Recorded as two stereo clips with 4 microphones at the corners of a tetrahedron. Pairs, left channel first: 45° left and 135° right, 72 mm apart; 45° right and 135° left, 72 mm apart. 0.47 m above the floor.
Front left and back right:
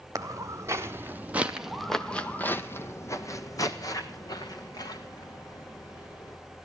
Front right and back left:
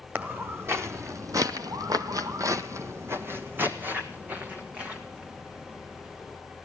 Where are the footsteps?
170° right, 1.4 m; by 6.4 s 60° left, 3 m.